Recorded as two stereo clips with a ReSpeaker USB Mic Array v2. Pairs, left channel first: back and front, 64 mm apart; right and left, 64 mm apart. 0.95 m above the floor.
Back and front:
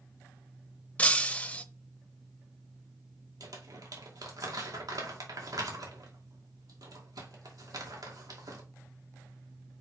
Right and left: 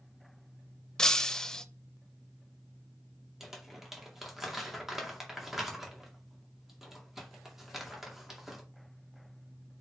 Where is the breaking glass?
155° right, 0.7 m.